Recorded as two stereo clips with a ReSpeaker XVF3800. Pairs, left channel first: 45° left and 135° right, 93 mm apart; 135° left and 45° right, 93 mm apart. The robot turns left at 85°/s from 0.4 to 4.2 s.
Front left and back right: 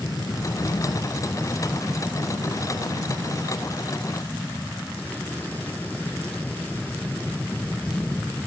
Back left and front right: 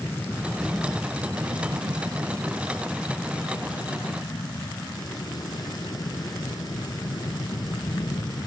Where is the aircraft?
75° left; by 8.5 s 110° left.